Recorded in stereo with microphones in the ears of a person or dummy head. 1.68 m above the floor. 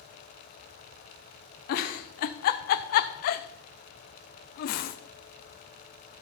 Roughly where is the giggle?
Left.